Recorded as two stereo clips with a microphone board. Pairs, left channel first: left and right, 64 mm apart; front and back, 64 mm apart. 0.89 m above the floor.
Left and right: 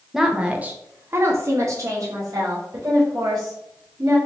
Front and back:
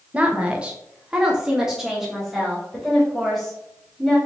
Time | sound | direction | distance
0.1 | a woman speaking | 165° right | 0.7 m